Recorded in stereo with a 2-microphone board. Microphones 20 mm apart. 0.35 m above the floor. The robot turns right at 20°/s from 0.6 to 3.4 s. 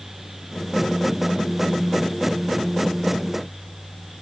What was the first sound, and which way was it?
Only background noise.